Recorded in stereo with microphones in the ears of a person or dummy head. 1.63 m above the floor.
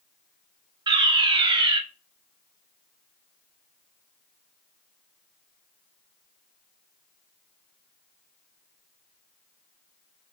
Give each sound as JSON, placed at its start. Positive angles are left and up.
{"t": 0.9, "sound": "a fire alarm", "side_deg": -25, "distance_m": 1.3}